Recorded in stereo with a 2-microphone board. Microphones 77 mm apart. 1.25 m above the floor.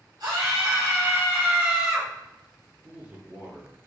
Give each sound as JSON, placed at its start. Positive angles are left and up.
{"t": 0.2, "sound": "a scream", "side_deg": -60, "distance_m": 1.5}
{"t": 2.8, "sound": "a man speaking", "side_deg": -20, "distance_m": 1.1}